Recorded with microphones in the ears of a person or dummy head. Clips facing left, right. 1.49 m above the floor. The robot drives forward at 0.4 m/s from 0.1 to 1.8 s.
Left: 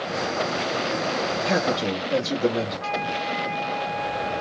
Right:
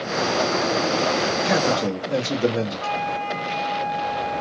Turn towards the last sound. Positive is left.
turn(degrees=-40)  # may be behind; listen again after turning